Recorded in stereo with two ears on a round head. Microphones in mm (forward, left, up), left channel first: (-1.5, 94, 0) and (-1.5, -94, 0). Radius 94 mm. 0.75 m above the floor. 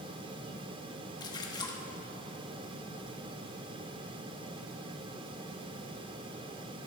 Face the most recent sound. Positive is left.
turn(degrees=20)  # may be behind; listen again after turning